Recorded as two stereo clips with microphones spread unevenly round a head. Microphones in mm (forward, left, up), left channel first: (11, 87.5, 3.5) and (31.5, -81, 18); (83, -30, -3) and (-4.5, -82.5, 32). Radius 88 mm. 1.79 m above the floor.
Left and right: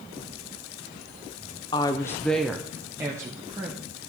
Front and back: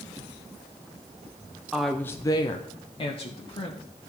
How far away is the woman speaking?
About 0.6 m.